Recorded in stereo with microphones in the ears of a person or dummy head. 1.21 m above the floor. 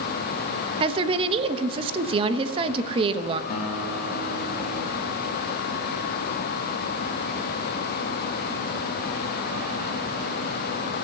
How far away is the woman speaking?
About 1.0 m.